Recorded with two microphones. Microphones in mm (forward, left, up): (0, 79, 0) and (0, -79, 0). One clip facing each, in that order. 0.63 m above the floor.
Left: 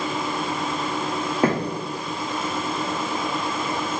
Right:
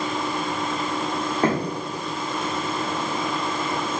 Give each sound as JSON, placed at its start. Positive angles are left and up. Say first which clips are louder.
{"t": 1.4, "sound": "footsteps", "louder": "left 1 dB", "side_deg": 10, "distance_m": 1.6}